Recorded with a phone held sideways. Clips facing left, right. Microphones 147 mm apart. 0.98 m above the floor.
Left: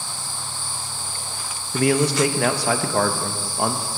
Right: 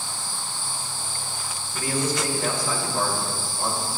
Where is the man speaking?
65° left (ahead or behind), 0.8 m.